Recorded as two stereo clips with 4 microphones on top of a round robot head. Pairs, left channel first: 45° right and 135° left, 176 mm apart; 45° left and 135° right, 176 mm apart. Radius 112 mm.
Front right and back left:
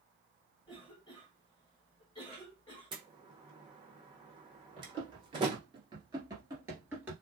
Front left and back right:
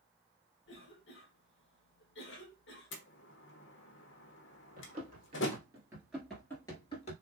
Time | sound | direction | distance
0.7 | a cough | 25° left | 1.0 m
2.9 | a door slam | 70° left | 0.9 m
4.8 | running footsteps | 165° right | 1.8 m